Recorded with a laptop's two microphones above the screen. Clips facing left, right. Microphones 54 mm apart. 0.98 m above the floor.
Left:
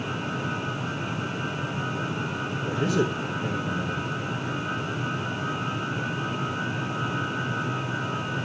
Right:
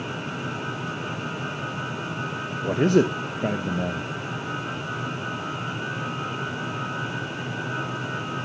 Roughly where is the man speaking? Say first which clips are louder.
Right 6 dB; right.